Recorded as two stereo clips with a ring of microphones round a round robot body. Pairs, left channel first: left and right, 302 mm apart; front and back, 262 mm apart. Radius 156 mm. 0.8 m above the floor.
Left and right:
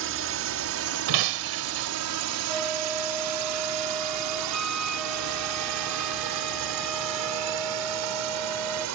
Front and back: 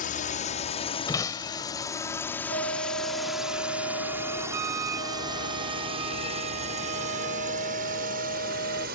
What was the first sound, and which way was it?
A drone, 55° right.